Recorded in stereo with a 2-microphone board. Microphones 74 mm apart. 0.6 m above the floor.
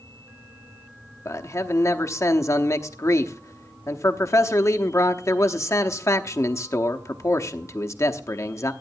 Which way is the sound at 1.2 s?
40° left (ahead or behind).